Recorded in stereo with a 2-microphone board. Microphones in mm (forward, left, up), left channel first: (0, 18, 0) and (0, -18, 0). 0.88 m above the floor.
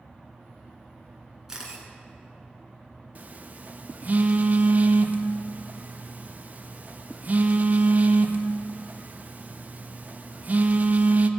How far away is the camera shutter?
About 3 m.